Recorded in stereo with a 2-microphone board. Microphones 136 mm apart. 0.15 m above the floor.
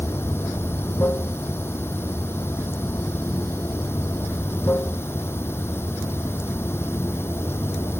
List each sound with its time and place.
0.0 s running water: 15° left (ahead or behind)